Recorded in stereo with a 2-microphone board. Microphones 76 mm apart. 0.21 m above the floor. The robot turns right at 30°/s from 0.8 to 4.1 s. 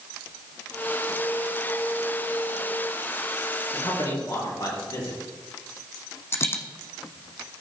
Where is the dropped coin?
35° left (ahead or behind), 1.0 m.